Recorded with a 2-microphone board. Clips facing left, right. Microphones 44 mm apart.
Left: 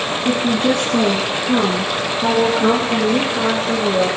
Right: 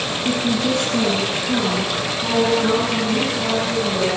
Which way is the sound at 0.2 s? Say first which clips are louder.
Left 4 dB; 35° left (ahead or behind).